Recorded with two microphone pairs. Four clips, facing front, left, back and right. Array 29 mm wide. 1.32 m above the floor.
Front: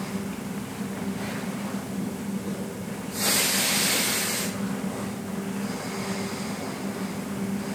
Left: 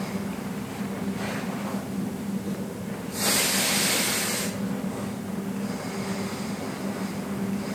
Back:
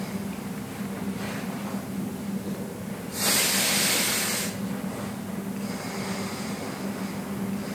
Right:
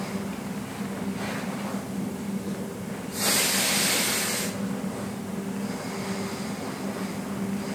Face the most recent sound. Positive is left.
No sound to turn to.